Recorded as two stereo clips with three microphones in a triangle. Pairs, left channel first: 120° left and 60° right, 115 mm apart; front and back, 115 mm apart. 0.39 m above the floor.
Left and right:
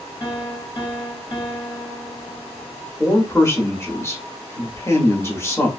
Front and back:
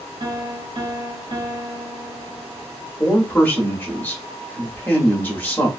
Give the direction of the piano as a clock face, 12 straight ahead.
7 o'clock.